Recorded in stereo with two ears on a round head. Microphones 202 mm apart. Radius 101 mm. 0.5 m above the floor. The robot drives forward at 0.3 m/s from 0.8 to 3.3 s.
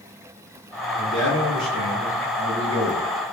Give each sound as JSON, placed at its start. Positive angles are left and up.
{"t": 0.9, "sound": "a man speaking", "side_deg": -10, "distance_m": 1.4}